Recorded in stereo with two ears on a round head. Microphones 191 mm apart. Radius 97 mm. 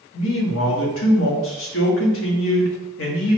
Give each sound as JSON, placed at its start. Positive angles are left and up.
{"t": 0.1, "sound": "a man speaking", "side_deg": 70, "distance_m": 1.0}